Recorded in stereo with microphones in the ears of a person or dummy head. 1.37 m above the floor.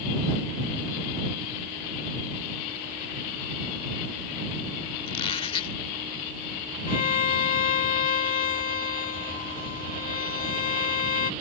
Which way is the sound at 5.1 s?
35° left (ahead or behind).